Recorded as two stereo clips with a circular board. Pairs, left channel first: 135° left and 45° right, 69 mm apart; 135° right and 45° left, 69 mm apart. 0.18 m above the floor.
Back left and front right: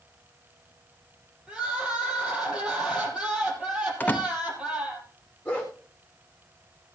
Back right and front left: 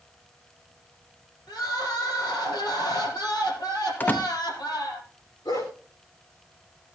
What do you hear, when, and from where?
1.5 s crying: 120° right, 4.5 m
4.0 s a door slam: 175° right, 0.9 m
5.5 s a dog barking: 155° right, 4.5 m